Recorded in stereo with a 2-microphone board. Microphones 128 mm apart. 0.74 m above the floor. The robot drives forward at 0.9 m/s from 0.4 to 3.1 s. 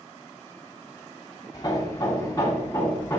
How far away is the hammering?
About 2.5 m.